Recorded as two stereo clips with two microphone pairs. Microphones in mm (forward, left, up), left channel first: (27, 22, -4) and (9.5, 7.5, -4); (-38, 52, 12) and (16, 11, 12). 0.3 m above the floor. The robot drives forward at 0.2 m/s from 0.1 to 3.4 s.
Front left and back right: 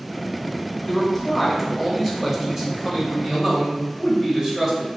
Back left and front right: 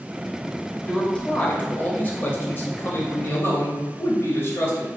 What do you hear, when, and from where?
0.8 s a man speaking: 125° left, 0.9 m; by 4.9 s 160° left, 1.1 m